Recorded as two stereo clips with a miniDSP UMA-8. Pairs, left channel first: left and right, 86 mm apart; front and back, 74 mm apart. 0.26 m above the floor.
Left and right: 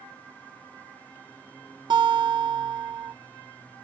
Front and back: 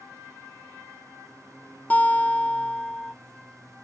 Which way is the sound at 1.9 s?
70° right.